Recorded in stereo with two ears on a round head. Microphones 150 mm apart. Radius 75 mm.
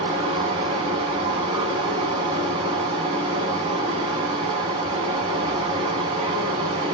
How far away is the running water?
About 0.8 m.